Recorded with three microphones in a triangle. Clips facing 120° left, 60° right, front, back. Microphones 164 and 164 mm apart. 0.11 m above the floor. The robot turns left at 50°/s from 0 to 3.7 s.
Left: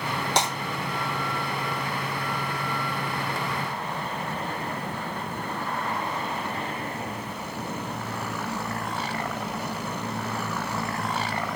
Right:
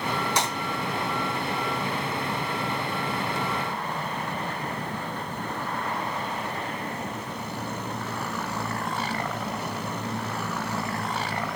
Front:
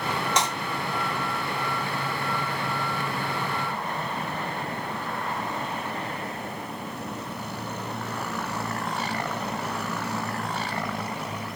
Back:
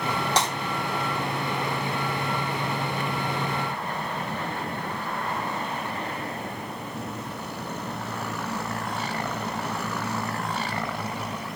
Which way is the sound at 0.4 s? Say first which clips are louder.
Left 4 dB, back 1 dB; 125° left.